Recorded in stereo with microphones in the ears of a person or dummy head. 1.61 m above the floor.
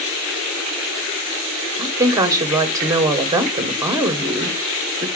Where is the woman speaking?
15° right (ahead or behind), 0.9 m.